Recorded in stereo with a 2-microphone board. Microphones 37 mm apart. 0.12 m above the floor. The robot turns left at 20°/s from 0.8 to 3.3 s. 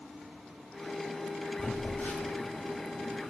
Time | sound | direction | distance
1.6 | a phone buzzing | 75° left (ahead or behind) | 1.5 m